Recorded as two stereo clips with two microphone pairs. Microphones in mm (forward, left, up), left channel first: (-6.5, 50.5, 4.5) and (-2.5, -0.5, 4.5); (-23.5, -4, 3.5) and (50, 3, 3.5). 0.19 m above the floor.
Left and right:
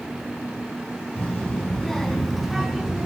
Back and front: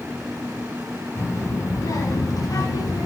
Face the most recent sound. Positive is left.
turn(degrees=-160)